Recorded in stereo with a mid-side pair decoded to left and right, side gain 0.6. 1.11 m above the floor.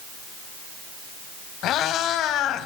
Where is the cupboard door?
I don't hear a cupboard door.